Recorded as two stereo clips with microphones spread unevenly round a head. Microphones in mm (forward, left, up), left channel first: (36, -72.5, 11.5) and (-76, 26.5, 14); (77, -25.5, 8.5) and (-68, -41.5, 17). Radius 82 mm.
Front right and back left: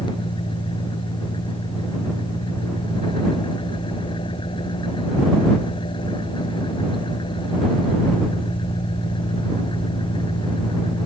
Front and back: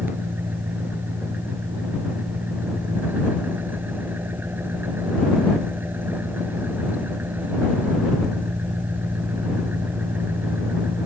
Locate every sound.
0.0 s an engine running: 95° right